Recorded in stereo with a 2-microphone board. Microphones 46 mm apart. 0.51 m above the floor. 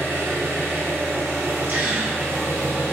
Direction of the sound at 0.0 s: 65° right (ahead or behind).